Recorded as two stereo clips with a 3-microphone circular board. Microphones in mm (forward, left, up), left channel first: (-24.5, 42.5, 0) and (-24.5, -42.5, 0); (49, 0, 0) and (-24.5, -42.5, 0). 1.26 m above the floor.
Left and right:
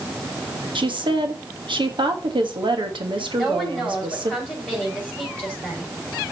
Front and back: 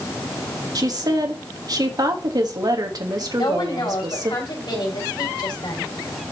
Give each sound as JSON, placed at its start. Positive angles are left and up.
{"t": 0.8, "sound": "a woman speaking", "azimuth_deg": -110, "distance_m": 1.5}
{"t": 3.4, "sound": "a woman speaking", "azimuth_deg": 10, "distance_m": 5.0}